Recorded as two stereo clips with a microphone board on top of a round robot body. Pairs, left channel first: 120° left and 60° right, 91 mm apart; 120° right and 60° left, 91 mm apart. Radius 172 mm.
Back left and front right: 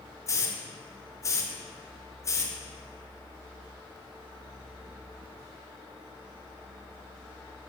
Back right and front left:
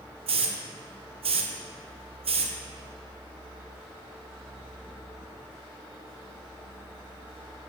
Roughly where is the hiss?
Ahead left.